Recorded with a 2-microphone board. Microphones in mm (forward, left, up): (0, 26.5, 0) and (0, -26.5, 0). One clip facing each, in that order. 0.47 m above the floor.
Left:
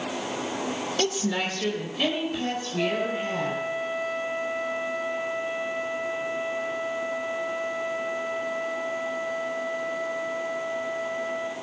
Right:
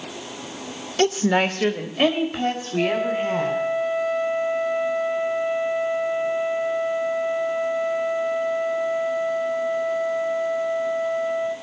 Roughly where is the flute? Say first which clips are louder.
Right 5 dB; centre.